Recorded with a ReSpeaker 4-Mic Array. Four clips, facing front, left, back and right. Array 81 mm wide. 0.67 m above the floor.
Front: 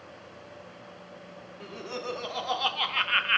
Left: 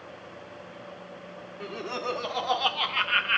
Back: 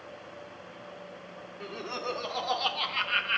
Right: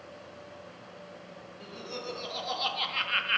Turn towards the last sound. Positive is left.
turn(degrees=10)